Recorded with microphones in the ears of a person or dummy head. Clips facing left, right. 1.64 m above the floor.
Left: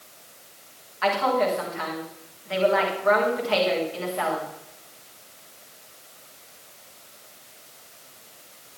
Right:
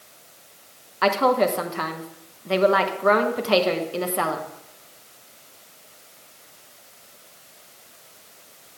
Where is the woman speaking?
75° right (ahead or behind), 1.2 m.